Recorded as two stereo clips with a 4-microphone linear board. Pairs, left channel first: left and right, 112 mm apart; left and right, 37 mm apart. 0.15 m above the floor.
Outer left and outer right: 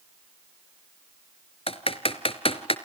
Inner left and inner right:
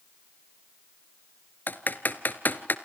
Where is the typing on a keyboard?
60° left (ahead or behind), 1.1 m.